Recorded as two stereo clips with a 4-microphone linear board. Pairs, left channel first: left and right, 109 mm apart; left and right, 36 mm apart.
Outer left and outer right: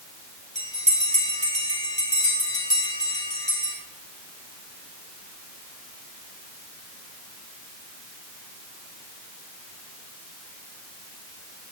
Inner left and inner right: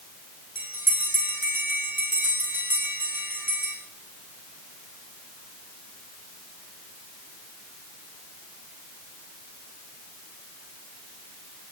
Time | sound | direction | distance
0.6 | a bell | 80° right | 6.5 m